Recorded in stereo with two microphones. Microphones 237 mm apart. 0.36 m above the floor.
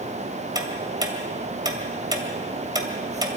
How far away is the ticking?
About 2 m.